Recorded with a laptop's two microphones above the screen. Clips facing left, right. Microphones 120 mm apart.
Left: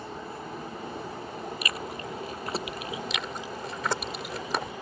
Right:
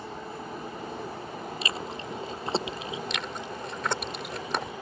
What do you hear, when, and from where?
1.6 s chewing: 25° right (ahead or behind)
3.1 s chewing: centre (ahead or behind)